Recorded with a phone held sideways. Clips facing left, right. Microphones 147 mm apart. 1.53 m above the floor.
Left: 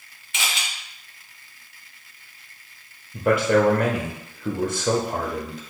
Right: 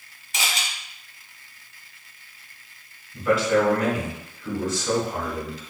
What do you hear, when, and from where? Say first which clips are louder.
0.3 s a camera shutter: right 1 dB; 40° right (ahead or behind), 1.0 m
3.1 s a man speaking: left 2 dB; 60° left (ahead or behind), 0.8 m